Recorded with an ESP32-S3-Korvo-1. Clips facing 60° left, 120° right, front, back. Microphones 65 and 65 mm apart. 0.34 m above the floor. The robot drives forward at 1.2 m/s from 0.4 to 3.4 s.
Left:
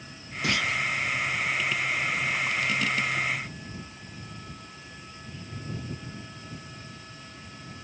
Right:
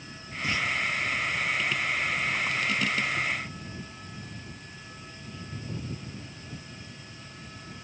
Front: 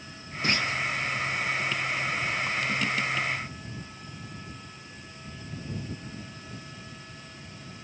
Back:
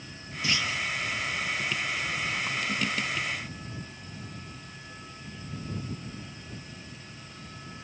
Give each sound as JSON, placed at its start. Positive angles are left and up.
{"t": 0.4, "sound": "a clunk", "azimuth_deg": 45}